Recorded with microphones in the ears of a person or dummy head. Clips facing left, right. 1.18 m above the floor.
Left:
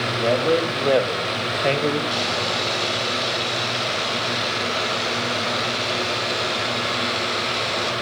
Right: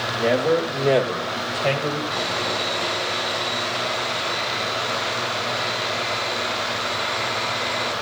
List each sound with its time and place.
0.1 s a man speaking: 10° right (ahead or behind), 2.5 m; by 2.0 s 30° left (ahead or behind), 1.5 m
2.1 s sawing: 50° left (ahead or behind), 6 m